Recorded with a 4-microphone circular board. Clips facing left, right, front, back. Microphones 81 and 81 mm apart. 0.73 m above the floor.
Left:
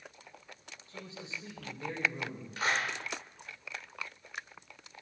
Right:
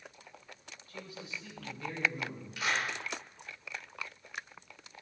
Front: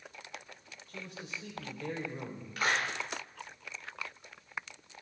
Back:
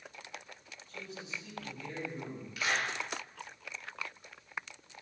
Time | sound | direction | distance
0.9 | a man speaking | 30° left | 2.5 m
2.6 | a clap | 40° left | 1.9 m